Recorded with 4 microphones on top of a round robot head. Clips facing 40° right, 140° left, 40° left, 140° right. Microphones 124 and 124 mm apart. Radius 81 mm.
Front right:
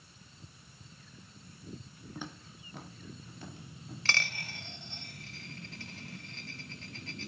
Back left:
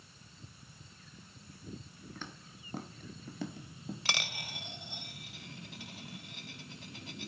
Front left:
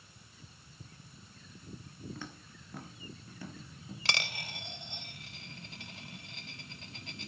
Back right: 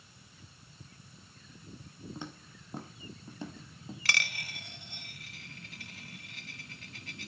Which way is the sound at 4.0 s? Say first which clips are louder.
Front right 5 dB, even; 80° left.